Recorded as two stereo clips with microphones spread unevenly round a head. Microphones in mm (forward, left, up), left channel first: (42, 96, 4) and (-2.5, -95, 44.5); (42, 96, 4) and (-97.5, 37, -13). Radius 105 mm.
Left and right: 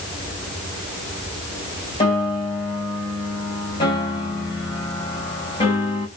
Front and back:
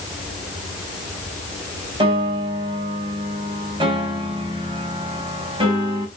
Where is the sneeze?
I don't hear a sneeze.